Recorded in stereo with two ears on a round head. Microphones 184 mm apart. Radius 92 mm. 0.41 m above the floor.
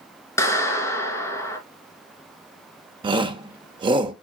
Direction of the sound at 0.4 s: 15° left (ahead or behind).